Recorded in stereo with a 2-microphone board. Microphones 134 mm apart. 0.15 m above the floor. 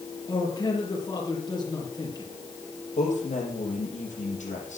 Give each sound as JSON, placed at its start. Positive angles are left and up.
{"t": 0.3, "sound": "a man speaking", "side_deg": 30, "distance_m": 4.5}
{"t": 3.0, "sound": "a man speaking", "side_deg": 65, "distance_m": 4.5}